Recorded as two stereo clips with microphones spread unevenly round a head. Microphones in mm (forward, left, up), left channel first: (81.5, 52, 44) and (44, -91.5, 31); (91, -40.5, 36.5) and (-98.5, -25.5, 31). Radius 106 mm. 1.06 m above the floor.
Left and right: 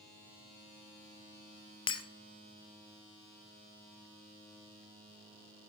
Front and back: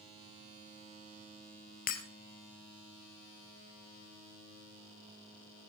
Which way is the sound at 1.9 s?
35° left.